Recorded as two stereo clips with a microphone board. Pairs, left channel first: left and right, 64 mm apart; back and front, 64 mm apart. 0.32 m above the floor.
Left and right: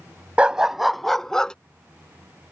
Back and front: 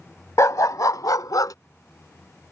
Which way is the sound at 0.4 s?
160° right.